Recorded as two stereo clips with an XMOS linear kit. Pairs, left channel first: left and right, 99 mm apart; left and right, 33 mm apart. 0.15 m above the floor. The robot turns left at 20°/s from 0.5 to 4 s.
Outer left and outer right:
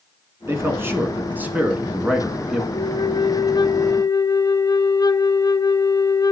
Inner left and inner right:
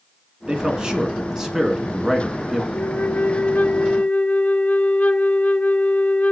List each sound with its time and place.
0.5 s a man speaking: 130° right, 1.5 m; by 2.6 s 175° right, 1.5 m
2.7 s a flute: 55° left (ahead or behind), 0.5 m; by 6.3 s 40° left (ahead or behind), 0.5 m